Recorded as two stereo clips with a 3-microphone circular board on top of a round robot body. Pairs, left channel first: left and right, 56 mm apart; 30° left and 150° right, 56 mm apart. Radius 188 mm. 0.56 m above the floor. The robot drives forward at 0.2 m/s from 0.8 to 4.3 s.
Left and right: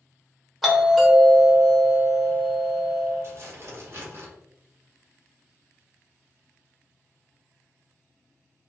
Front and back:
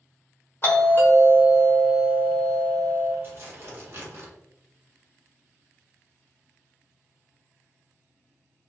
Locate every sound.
0.6 s a doorbell: straight ahead, 1.4 m; by 3.1 s 5° right, 1.2 m
3.2 s tearing paper: 115° right, 1.5 m; by 4.3 s 125° right, 1.6 m